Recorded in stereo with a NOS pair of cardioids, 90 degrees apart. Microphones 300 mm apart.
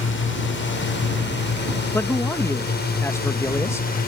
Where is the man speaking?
10° left.